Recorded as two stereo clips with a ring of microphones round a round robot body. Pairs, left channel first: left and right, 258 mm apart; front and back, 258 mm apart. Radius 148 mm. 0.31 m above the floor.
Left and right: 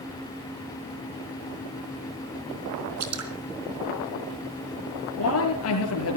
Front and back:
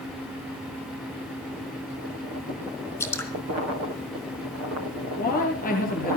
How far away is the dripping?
About 4 m.